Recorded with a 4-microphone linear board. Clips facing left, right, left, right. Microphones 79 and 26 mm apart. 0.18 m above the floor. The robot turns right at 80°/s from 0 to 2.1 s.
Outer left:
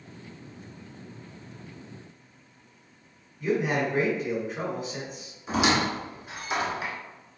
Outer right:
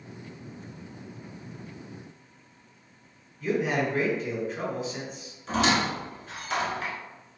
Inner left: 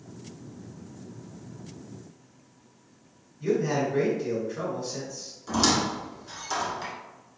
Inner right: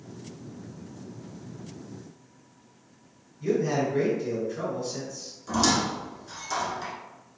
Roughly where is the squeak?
Centre.